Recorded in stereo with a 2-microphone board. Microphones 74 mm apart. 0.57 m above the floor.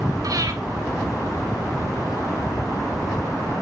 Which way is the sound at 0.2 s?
55° right (ahead or behind).